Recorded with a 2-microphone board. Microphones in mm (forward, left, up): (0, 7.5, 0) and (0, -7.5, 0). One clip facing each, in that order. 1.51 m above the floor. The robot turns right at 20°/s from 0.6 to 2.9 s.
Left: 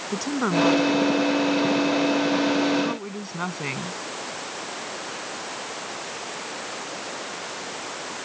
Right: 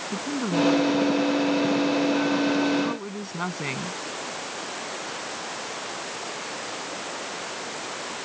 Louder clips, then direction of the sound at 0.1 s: Left 3 dB; 130° left.